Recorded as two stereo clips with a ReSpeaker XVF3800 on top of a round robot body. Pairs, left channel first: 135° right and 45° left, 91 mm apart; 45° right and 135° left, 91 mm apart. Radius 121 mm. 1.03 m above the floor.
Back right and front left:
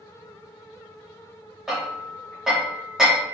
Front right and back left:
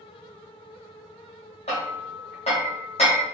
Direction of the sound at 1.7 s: 40° right.